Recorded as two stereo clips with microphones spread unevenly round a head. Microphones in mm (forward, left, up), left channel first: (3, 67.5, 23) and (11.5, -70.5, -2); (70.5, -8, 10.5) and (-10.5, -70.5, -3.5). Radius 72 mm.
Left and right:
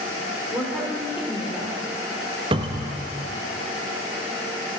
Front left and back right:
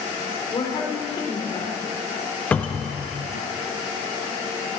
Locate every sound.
0.5 s a woman speaking: 5° right, 3.5 m
2.5 s a cupboard door: 40° right, 1.1 m